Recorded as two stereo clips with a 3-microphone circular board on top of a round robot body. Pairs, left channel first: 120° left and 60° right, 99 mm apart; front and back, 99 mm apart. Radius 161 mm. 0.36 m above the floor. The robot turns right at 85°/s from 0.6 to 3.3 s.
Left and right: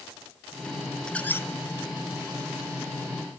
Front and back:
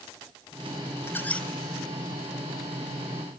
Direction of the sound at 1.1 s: 45° left.